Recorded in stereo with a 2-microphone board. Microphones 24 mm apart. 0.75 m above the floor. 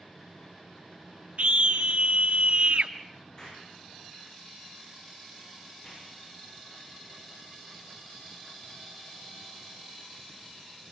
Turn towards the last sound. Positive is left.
turn(degrees=25)  # may be behind; listen again after turning